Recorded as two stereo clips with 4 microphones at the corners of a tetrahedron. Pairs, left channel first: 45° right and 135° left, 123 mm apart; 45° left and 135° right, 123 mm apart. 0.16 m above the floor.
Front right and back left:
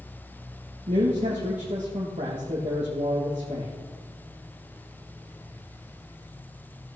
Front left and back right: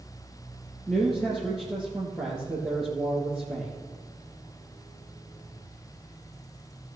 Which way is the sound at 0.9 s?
125° left.